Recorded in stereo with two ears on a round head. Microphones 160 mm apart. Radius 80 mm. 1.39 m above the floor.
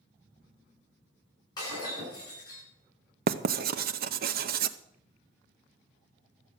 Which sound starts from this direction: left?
Breaking glass, at 1.6 s.